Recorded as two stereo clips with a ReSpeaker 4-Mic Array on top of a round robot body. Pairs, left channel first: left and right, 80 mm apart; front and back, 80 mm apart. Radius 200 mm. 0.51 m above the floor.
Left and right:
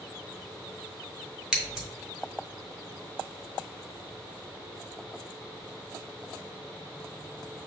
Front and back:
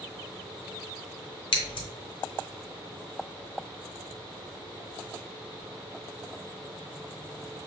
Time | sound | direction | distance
1.5 | scissors | 10° right | 0.7 m